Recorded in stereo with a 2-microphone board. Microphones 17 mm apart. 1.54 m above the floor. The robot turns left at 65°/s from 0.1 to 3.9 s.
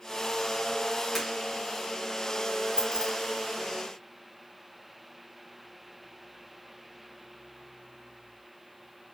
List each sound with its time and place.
1.1 s breaking glass: centre (ahead or behind), 3 m; by 1.3 s 5° left (ahead or behind), 3 m
2.8 s keys jangling: 45° right (ahead or behind), 0.5 m; by 3.1 s 30° right (ahead or behind), 0.5 m